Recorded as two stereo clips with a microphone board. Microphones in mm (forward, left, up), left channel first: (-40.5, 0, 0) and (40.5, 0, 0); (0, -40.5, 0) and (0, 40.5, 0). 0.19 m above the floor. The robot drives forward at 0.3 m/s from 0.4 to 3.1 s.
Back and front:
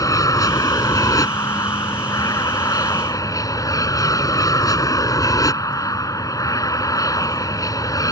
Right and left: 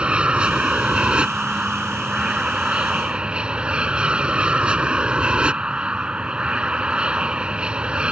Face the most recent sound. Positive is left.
turn(degrees=165)